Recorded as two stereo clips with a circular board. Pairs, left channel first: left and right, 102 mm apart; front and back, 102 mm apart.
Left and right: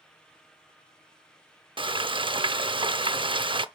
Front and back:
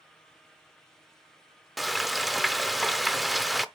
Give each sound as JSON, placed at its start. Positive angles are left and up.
{"t": 1.8, "sound": "frying", "azimuth_deg": -90, "distance_m": 0.5}